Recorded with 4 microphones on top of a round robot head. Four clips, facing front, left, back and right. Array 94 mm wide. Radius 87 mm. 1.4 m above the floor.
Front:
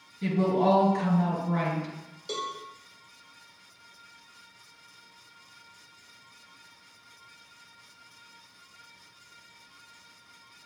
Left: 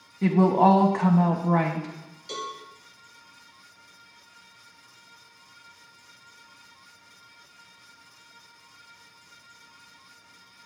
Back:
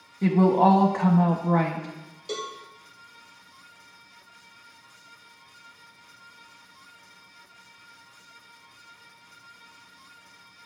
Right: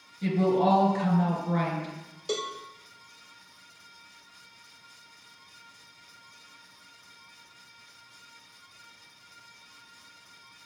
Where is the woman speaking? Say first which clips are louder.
Left 5 dB, back 5 dB; 135° left, 1.0 m.